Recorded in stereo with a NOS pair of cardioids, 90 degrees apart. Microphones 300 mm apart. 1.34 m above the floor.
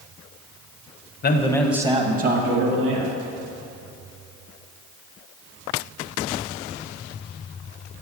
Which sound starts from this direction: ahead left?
A man speaking, at 1.2 s.